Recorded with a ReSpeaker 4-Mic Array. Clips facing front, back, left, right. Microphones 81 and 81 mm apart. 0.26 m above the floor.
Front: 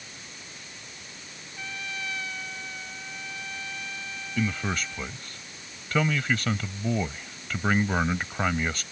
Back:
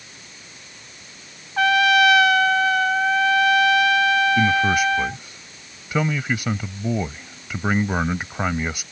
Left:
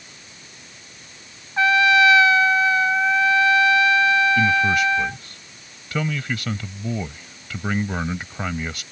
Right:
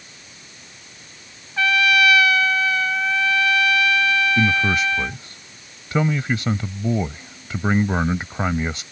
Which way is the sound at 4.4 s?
115° right.